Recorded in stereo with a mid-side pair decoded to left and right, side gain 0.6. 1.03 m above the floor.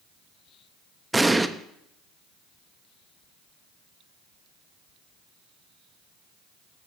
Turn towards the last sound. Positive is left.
turn(degrees=-10)